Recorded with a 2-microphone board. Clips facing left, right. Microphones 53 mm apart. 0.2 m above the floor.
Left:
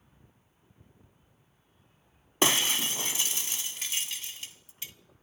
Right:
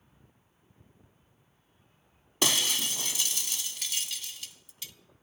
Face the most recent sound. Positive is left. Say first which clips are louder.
# left 3 dB
turn(degrees=30)  # may be behind; listen again after turning